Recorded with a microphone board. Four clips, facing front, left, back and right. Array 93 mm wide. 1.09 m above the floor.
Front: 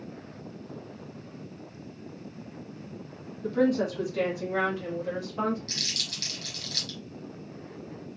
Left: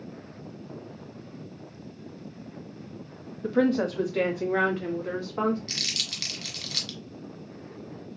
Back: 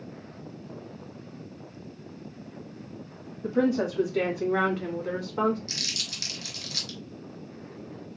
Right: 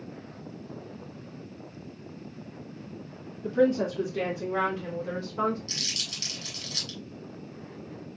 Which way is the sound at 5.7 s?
105° left.